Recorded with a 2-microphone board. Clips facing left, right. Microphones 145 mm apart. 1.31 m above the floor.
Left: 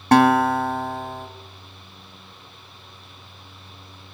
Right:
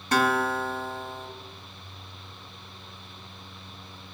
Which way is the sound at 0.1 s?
60° left (ahead or behind).